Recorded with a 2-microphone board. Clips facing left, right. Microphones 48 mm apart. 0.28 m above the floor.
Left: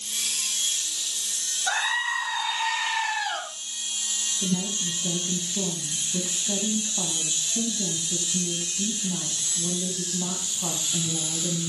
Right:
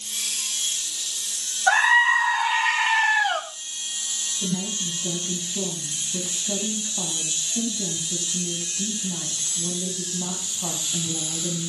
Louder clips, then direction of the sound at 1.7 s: Right 9 dB; 50° right (ahead or behind).